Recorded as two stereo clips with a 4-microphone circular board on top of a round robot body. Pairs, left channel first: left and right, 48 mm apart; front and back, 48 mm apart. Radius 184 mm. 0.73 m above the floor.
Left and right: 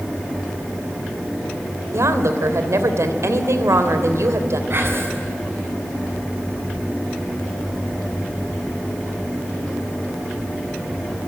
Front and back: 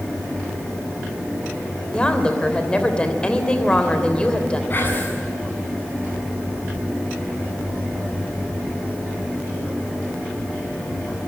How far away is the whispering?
About 7 m.